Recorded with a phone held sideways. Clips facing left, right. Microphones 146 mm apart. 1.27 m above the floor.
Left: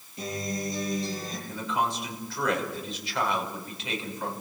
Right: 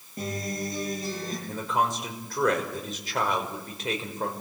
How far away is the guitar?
About 10 m.